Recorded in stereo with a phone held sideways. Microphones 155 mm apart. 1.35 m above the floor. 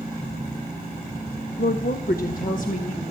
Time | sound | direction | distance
1.6 | a woman speaking | 85° left | 0.7 m